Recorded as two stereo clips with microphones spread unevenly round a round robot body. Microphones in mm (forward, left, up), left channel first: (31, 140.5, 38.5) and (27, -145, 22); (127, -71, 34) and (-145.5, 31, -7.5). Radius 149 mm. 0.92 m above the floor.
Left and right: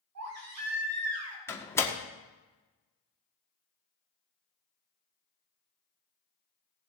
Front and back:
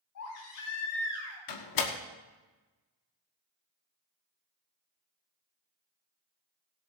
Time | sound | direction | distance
0.1 | a baby crying | 55° right | 3 m
1.5 | a door slam | 5° left | 1.3 m